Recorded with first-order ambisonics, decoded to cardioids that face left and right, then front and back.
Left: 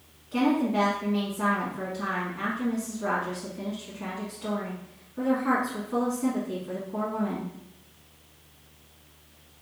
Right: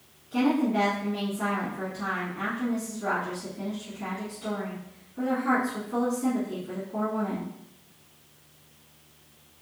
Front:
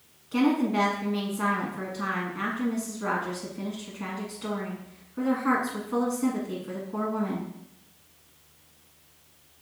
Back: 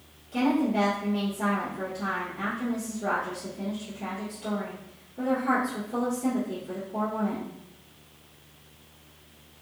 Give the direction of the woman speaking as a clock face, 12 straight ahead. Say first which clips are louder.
Even, front 1 dB; 12 o'clock.